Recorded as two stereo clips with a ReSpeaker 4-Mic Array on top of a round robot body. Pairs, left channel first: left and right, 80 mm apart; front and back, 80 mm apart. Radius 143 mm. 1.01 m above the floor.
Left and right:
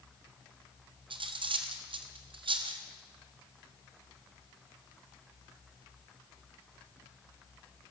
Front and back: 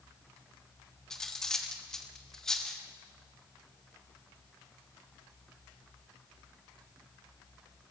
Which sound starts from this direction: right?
Cutlery clinking, at 1.1 s.